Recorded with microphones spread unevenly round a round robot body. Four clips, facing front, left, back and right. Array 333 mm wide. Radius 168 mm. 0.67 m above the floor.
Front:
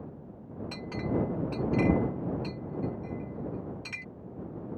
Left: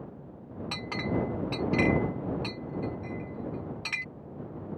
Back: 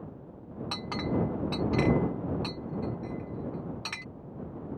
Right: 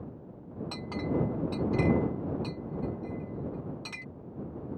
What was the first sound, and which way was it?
A clink, 155° left.